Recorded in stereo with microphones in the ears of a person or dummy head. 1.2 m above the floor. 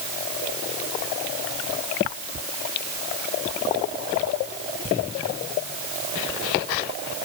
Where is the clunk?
I don't hear a clunk.